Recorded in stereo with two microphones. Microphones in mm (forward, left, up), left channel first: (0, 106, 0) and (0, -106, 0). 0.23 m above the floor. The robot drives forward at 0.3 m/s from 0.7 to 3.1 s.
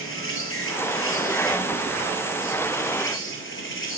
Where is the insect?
80° left, 2 m; by 4.0 s 65° left (ahead or behind), 2 m.